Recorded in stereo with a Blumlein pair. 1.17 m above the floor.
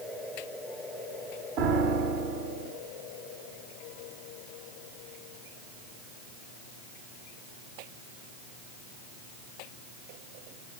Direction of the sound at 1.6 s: 40° right.